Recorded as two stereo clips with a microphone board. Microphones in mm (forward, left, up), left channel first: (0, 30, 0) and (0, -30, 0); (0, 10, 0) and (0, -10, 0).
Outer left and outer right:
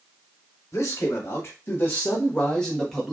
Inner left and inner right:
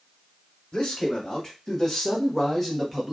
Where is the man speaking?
50° left (ahead or behind), 1.6 m; by 3.1 s centre (ahead or behind), 1.0 m.